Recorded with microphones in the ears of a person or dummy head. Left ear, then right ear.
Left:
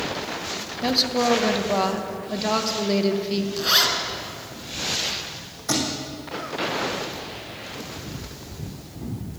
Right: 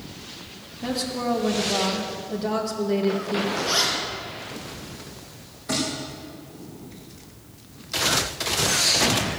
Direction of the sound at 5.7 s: 50° left (ahead or behind).